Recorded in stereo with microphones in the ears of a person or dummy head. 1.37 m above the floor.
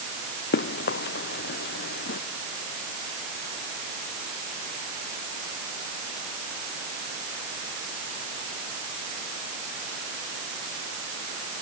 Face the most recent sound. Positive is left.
turn(degrees=65)  # may be behind; listen again after turning